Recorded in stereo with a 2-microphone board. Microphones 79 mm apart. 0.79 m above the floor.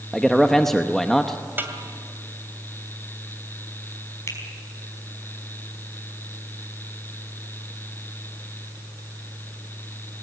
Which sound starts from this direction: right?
A snare drum, at 1.6 s.